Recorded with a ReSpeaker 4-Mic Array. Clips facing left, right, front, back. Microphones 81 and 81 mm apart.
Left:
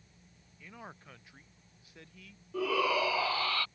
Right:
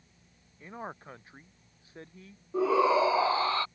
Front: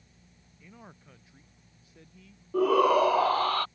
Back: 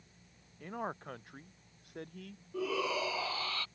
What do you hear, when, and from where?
0.6 s a man speaking: 145° right; by 2.4 s 150° right
2.5 s a shout: 25° right